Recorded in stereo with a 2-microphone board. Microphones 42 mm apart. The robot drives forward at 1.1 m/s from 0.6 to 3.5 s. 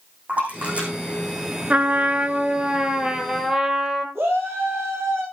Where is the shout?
80° right, 8.5 m.